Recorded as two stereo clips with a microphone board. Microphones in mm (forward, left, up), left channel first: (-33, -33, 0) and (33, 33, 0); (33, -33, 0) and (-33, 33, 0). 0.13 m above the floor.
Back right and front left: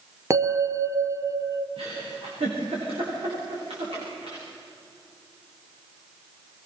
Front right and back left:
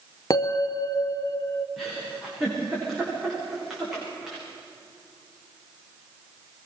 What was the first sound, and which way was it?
A bell, 5° right.